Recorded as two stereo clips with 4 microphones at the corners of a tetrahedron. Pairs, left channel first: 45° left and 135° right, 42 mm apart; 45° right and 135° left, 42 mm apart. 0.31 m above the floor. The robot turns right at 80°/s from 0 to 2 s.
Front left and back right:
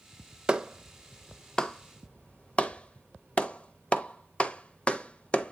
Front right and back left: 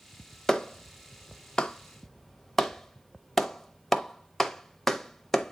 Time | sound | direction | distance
0.5 | a clap | 95° right | 0.7 m